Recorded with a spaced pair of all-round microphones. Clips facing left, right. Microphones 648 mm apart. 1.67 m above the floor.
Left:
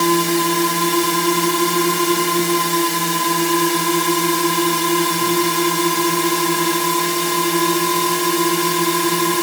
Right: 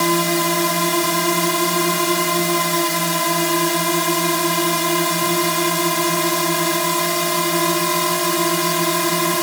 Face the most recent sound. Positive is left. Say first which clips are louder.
# left 2 dB
turn(degrees=-10)  # may be behind; listen again after turning